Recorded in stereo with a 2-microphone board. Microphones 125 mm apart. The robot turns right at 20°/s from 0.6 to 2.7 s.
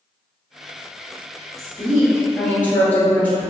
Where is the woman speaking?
25° left (ahead or behind), 1.7 m; by 3.5 s 10° left (ahead or behind), 1.7 m.